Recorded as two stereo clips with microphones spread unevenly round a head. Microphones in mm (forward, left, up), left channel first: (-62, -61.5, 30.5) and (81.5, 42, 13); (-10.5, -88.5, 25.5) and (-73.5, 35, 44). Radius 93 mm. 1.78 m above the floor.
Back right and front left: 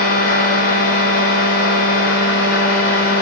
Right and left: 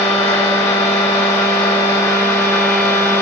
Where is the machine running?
135° right, 3.5 m.